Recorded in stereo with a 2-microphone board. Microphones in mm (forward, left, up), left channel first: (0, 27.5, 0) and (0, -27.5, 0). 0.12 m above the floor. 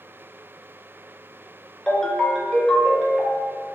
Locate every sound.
1.9 s a ringtone: 10° left (ahead or behind), 0.7 m